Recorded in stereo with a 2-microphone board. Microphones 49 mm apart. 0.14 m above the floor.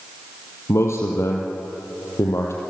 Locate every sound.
0.7 s a man speaking: 60° left (ahead or behind), 4 m